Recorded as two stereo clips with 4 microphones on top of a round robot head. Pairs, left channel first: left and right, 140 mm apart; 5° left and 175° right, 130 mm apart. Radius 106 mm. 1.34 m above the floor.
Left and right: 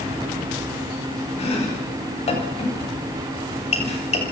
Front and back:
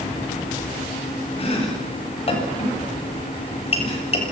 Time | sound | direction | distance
1.4 | chopping | 50° left | 8 m